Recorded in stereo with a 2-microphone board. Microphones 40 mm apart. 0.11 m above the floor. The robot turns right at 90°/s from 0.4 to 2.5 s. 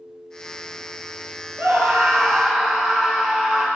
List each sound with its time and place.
1.6 s a scream: 85° right, 2.5 m; by 3.7 s straight ahead, 2.5 m